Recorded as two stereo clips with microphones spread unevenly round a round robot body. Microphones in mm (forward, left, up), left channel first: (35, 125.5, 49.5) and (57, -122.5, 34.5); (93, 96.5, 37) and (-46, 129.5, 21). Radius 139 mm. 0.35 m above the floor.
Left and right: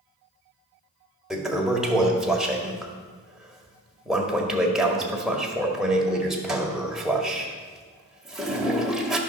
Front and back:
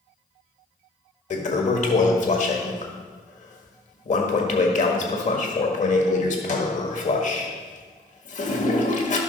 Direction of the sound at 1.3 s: Straight ahead.